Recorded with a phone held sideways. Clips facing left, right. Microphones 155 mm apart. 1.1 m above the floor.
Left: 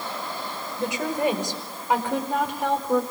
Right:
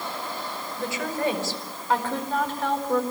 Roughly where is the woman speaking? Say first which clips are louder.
Left 3 dB; centre.